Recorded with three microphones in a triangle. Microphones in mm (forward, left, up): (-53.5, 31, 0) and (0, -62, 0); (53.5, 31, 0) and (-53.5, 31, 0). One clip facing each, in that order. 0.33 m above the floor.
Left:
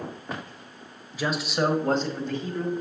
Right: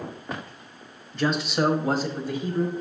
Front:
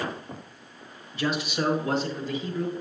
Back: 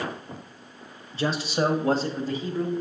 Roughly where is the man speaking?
Behind.